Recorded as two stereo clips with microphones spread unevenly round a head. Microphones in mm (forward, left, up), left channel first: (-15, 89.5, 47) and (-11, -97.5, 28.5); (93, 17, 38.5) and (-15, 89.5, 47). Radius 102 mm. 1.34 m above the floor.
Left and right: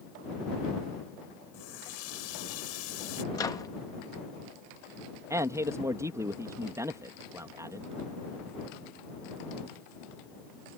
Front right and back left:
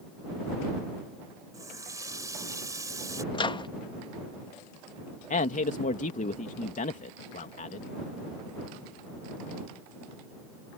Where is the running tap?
80° left.